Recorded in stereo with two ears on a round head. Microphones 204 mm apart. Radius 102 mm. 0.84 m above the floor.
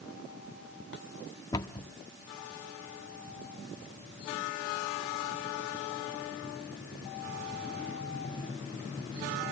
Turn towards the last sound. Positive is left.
turn(degrees=20)  # may be behind; listen again after turning